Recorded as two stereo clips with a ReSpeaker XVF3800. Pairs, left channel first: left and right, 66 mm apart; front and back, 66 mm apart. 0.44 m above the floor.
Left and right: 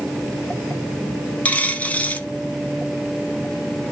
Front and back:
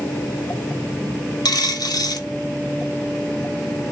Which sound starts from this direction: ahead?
A dropped coin, at 1.4 s.